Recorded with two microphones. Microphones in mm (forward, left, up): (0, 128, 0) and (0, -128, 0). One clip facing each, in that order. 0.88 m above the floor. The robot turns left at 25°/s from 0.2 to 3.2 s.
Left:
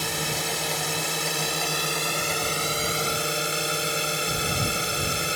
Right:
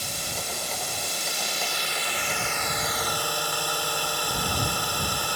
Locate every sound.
0.0 s a drone: 100° left; by 5.4 s 25° left